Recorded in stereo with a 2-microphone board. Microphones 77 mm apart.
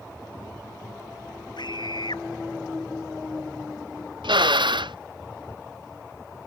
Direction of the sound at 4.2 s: 75° right (ahead or behind).